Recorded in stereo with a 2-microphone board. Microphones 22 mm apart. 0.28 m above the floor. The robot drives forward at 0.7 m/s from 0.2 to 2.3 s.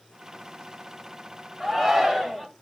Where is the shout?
20° right (ahead or behind), 1.2 m; by 2.5 s 15° right (ahead or behind), 1.4 m.